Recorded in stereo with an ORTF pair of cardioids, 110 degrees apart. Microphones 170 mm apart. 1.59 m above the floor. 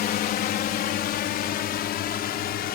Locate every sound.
0.0 s a drone: 65° left